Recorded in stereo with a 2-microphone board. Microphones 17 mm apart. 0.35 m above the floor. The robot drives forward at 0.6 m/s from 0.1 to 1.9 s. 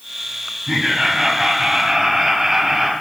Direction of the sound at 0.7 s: 35° right (ahead or behind).